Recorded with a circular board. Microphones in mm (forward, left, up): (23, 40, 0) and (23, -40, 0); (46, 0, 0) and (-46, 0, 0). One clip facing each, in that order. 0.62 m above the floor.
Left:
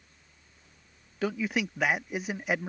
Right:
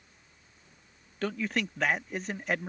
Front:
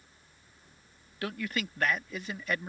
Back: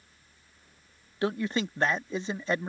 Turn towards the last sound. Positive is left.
turn(degrees=160)